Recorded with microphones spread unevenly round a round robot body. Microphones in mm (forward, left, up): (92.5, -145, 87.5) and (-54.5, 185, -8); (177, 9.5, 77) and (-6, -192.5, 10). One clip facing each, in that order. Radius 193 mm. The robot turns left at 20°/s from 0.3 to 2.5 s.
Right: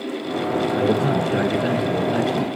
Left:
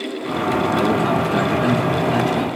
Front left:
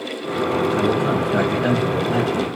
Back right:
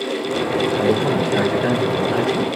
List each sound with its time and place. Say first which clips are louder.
0.8 s a man speaking: right 1 dB, back right 1 dB; 140° left, 1.3 m; by 2.5 s 105° left, 1.3 m